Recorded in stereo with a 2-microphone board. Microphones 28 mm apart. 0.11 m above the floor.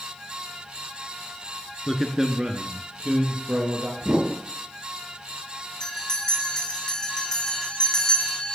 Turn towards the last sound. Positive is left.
turn(degrees=25)  # may be behind; listen again after turning